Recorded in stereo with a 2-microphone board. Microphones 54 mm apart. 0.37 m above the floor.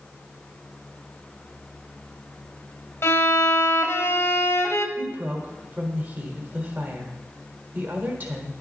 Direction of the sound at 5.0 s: 35° right (ahead or behind).